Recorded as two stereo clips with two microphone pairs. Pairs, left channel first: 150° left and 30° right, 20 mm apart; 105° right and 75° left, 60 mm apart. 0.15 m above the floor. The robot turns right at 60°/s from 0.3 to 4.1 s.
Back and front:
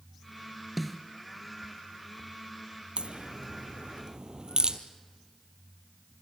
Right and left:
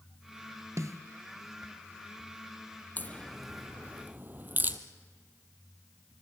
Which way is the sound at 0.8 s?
60° left.